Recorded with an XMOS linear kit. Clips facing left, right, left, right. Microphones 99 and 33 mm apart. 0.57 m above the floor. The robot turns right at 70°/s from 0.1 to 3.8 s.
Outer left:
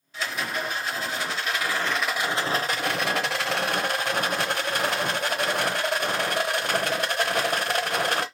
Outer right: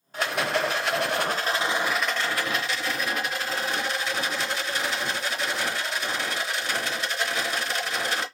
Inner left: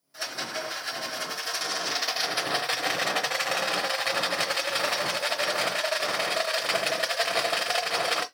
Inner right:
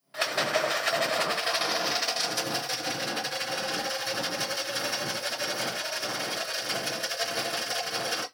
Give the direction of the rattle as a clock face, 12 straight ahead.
4 o'clock.